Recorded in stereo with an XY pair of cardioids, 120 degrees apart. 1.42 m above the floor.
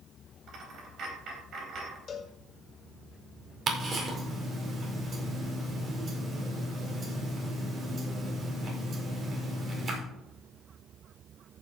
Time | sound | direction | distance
0.5 | a dropped coin | 55° right | 3.5 m
2.1 | a cowbell | 45° left | 1.7 m
3.7 | ticking | 40° right | 4.5 m